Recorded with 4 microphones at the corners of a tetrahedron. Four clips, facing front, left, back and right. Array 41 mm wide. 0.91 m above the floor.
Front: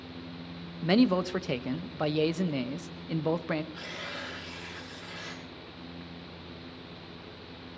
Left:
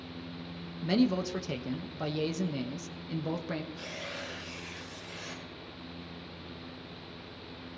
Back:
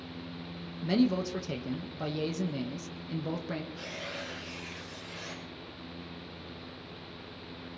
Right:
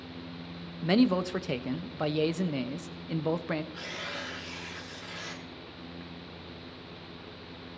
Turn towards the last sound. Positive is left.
turn(degrees=-50)